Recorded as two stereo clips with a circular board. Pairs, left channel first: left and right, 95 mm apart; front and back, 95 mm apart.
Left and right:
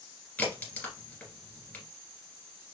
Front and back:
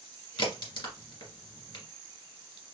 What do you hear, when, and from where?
0.4 s a crack: 20° left, 2.5 m